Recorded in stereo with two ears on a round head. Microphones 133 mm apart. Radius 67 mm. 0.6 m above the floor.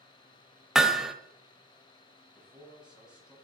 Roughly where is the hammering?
Centre.